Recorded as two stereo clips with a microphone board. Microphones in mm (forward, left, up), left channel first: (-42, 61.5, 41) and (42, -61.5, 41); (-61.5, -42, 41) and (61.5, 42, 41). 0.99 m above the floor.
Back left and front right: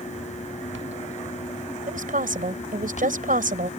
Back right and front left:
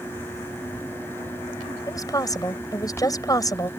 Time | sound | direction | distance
1.9 | a woman speaking | 80° right | ?